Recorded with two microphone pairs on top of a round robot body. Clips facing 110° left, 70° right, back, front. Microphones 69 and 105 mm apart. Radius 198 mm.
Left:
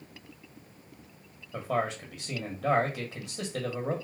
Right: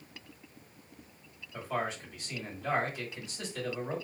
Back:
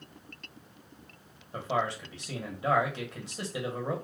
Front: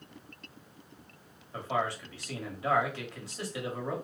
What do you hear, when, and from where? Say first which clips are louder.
1.5 s a man speaking: left 4 dB, back 1 dB; 110° left, 1.2 m